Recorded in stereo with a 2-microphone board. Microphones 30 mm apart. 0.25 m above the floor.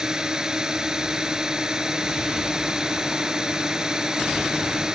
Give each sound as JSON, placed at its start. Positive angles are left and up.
{"t": 0.0, "sound": "a drone", "side_deg": -20}